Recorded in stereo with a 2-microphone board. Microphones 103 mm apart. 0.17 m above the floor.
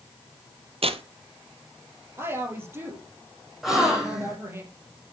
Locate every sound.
0.8 s tearing paper: 70° right (ahead or behind), 0.8 m
2.2 s a woman speaking: 25° right (ahead or behind), 4.5 m
3.6 s a gasp: 5° right (ahead or behind), 3 m